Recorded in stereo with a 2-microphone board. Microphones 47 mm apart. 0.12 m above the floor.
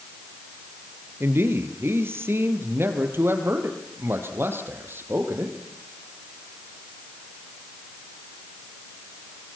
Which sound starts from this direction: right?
A man speaking, at 1.2 s.